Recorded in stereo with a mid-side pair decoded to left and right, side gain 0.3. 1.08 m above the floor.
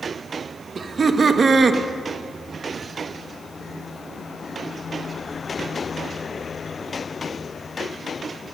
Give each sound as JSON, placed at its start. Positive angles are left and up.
{"t": 0.8, "sound": "laughter", "azimuth_deg": -55, "distance_m": 1.1}